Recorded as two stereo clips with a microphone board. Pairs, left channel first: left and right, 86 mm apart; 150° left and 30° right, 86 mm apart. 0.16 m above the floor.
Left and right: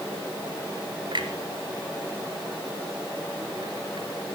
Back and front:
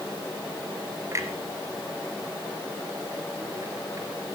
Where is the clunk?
80° right, 2.5 m.